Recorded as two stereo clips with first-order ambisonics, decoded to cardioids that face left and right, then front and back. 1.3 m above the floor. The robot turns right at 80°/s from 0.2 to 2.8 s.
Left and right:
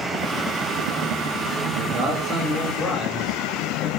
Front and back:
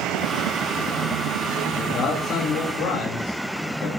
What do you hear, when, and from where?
1.7 s a man speaking: 70° right, 3 m; by 3.9 s 15° left, 3 m